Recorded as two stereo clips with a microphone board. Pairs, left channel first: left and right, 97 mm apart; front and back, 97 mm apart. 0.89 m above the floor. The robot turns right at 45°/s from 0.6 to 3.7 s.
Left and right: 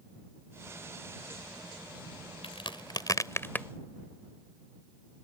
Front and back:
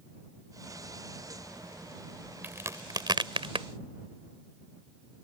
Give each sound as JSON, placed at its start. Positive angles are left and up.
{"t": 2.4, "sound": "a crack", "azimuth_deg": 110}